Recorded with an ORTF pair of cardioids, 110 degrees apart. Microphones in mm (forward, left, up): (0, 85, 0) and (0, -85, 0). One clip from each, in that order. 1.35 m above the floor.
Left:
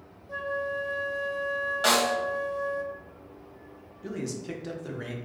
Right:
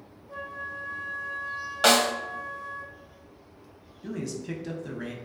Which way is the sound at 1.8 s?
35° right.